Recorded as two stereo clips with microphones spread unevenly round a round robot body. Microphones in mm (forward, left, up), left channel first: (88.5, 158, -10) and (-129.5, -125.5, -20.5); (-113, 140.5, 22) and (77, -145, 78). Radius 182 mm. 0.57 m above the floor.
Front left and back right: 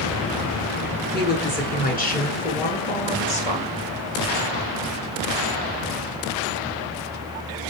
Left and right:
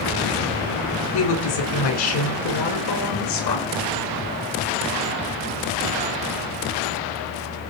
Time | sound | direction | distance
1.1 | a woman speaking | 115° left | 7 m